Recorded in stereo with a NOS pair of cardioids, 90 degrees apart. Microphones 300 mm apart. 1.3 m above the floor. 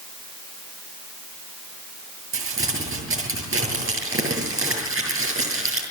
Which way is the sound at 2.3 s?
45° right.